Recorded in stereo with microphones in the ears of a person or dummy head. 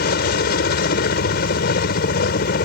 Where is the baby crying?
I don't hear a baby crying.